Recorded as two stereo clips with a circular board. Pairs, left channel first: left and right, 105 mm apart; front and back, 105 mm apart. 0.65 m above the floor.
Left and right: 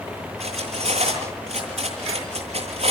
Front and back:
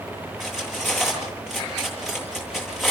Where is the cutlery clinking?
95° right, 9.5 m.